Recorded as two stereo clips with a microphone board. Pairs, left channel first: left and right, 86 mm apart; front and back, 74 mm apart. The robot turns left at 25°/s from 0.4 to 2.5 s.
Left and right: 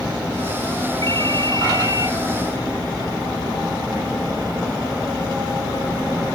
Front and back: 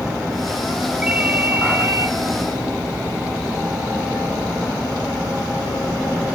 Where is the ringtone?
100° right, 1.1 m; by 2.1 s 130° right, 1.1 m.